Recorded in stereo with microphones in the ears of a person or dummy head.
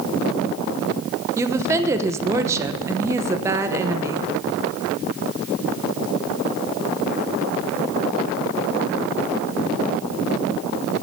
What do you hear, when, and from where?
1.4 s a woman speaking: 15° right (ahead or behind), 0.8 m